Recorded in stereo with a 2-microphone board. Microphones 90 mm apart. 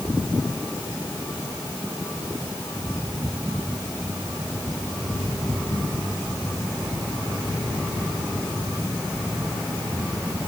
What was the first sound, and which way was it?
Only background noise.